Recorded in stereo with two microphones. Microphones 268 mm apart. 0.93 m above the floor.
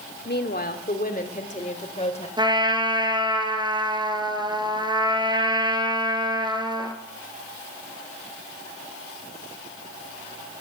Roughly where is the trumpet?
Centre.